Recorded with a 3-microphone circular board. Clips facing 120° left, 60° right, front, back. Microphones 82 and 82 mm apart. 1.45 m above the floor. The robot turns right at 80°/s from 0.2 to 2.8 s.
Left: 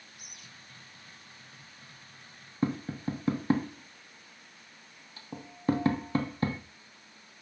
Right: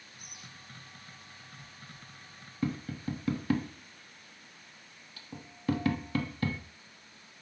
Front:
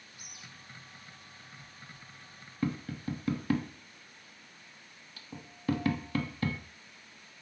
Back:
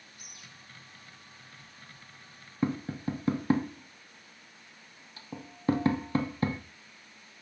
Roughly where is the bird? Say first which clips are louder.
Right 2 dB, front 2 dB; behind left.